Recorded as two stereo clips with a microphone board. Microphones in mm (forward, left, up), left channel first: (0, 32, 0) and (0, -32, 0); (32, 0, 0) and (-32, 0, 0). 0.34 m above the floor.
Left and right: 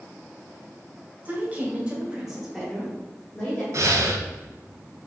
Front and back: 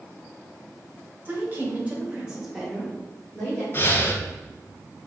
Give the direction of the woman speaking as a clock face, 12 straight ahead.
5 o'clock.